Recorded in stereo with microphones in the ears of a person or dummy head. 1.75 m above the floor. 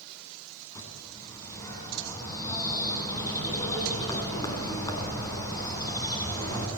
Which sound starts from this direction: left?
A bird, at 0.8 s.